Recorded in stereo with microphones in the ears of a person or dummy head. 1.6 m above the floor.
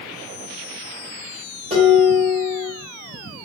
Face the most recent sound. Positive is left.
turn(degrees=-30)  # may be behind; listen again after turning